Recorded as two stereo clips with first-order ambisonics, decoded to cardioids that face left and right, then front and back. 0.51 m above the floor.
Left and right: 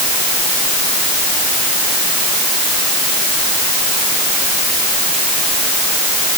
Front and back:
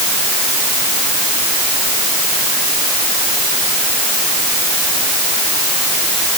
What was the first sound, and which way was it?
Only background noise.